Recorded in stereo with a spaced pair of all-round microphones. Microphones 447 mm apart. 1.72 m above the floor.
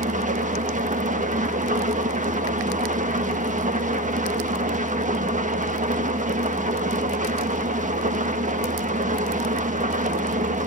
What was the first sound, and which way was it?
An engine running, 15° right (ahead or behind).